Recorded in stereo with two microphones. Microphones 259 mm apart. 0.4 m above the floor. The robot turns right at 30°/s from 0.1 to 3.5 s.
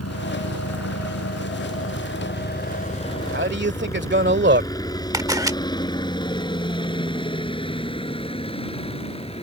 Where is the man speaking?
45° right (ahead or behind).